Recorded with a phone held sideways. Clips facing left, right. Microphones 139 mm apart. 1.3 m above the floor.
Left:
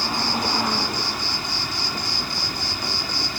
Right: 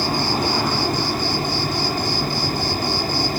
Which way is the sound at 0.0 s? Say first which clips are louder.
Right 4 dB; 50° right (ahead or behind).